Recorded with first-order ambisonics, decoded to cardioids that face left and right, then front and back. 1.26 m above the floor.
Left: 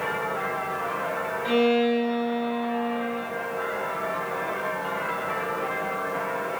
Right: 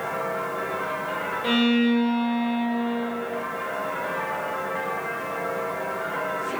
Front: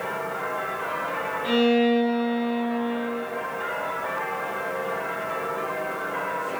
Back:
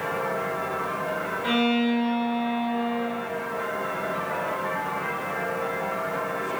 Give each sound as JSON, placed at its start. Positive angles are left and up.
{"t": 1.4, "sound": "a violin", "azimuth_deg": -105, "distance_m": 0.6}